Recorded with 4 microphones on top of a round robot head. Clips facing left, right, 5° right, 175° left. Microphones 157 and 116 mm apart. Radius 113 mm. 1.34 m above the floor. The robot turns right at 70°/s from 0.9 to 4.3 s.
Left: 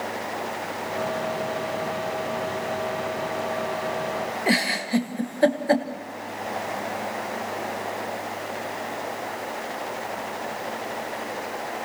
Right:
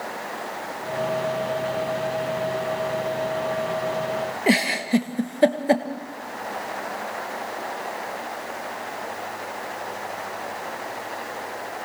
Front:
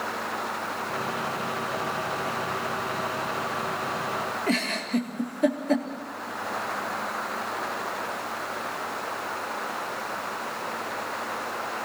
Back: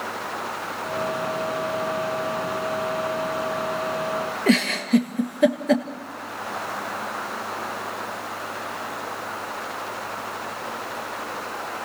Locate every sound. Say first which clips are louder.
4.5 s a giggle: right 4 dB, back 9 dB; 160° right, 1.5 m